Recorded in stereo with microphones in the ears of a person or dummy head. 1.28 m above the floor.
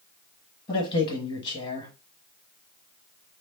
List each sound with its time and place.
0.7 s a man speaking: 25° left (ahead or behind), 1.6 m